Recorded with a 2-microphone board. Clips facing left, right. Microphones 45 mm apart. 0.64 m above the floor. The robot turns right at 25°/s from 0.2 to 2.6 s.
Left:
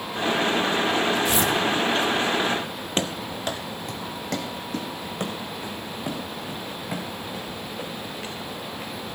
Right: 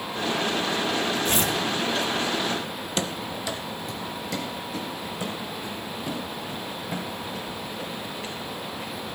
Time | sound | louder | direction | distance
1.2 | tearing paper | left 2 dB | 50° right (ahead or behind) | 1.2 m
3.0 | running footsteps | left 2 dB | 40° left (ahead or behind) | 0.9 m